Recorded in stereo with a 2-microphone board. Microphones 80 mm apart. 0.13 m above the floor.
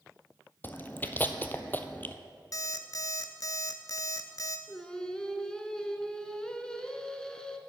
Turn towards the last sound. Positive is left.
turn(degrees=10)  # may be behind; listen again after turning